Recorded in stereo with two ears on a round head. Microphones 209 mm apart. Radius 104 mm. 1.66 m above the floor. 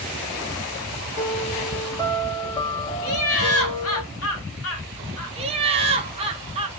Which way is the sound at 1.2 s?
15° left (ahead or behind).